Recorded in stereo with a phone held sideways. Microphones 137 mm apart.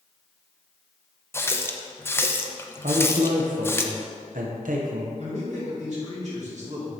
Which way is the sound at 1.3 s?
20° left (ahead or behind).